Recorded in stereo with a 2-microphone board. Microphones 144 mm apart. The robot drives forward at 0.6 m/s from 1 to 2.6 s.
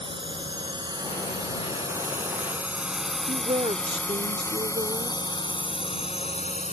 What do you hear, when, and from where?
0.0 s a drone: 35° right (ahead or behind); by 6.7 s 50° left (ahead or behind)
3.3 s a woman speaking: 50° right (ahead or behind)